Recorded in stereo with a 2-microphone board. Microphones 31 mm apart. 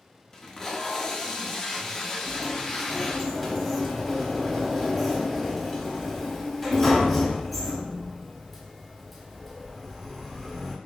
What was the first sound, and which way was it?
Tape being pulled, 20° left (ahead or behind).